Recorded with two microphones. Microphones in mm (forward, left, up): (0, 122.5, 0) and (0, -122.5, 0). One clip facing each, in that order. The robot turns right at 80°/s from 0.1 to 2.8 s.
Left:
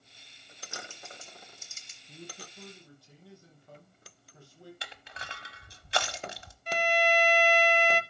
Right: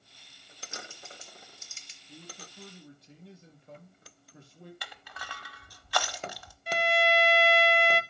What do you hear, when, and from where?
0.6 s typing on a keyboard: 30° right (ahead or behind), 1.7 m; by 2.0 s 55° left (ahead or behind), 1.7 m
2.1 s a man speaking: 145° left, 4 m; by 4.7 s 155° right, 4 m
4.8 s crushing: 25° left (ahead or behind), 1.0 m
6.7 s a violin: 10° right (ahead or behind), 0.6 m